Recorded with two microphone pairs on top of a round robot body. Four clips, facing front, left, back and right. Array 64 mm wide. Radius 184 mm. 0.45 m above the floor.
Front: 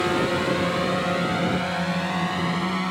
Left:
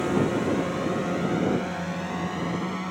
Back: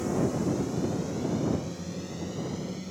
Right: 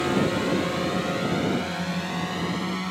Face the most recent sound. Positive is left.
turn(degrees=0)